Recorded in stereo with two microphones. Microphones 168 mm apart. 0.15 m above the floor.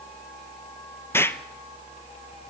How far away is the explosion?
About 0.8 m.